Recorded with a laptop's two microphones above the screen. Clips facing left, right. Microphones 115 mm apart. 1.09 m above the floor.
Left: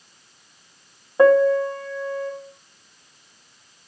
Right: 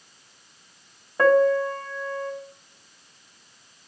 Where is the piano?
20° left (ahead or behind), 0.8 m.